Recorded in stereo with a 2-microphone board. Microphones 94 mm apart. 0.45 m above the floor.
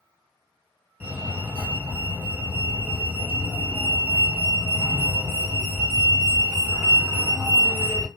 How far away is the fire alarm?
About 2.5 m.